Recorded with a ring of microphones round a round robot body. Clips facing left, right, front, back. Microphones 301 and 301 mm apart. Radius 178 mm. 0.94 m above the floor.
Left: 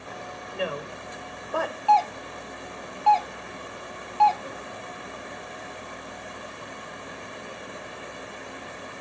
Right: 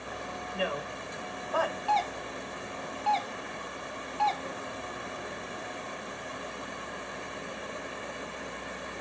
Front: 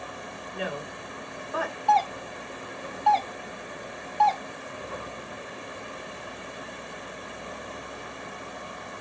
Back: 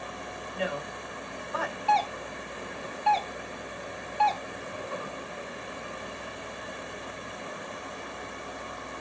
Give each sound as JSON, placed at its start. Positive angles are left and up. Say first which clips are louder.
{"t": 0.5, "sound": "a woman speaking", "louder": "left 3 dB, back 1 dB", "azimuth_deg": 25, "distance_m": 3.5}
{"t": 1.9, "sound": "a doorbell", "louder": "left 7 dB, front 3 dB", "azimuth_deg": -110, "distance_m": 0.6}